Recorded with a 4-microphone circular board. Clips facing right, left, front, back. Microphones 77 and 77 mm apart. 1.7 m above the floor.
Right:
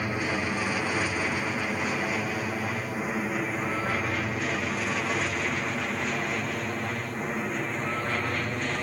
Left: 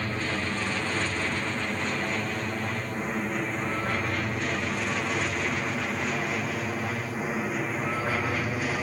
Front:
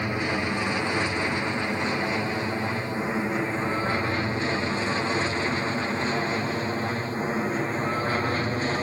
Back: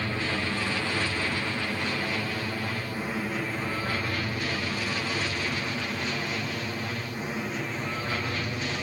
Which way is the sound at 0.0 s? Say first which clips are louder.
Right 1 dB, front 3 dB; 30° right.